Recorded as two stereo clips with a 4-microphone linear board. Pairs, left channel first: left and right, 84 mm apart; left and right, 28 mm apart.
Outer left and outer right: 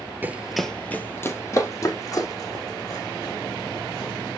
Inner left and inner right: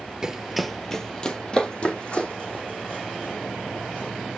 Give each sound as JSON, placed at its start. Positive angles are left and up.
{"t": 0.2, "sound": "running footsteps", "side_deg": -20, "distance_m": 0.8}